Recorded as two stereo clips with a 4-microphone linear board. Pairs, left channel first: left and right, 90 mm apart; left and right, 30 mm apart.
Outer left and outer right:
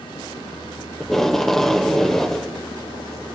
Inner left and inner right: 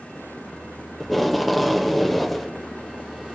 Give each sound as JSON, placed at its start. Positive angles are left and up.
{"t": 1.0, "sound": "tape being pulled", "side_deg": 5, "distance_m": 1.0}